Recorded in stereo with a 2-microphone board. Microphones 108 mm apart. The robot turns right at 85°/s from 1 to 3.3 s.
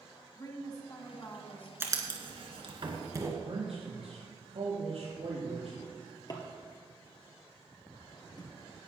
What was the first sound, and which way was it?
A woman speaking, 100° left.